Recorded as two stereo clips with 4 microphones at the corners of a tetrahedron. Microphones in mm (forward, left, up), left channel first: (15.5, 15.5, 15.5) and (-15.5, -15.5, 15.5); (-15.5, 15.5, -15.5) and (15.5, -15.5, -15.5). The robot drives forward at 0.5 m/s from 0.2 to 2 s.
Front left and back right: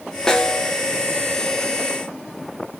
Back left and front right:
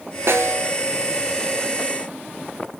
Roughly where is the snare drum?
Ahead right.